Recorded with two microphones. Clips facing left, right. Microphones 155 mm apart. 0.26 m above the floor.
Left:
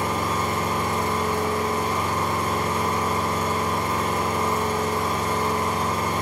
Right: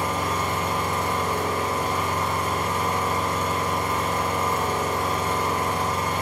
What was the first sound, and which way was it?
An engine running, 40° left (ahead or behind).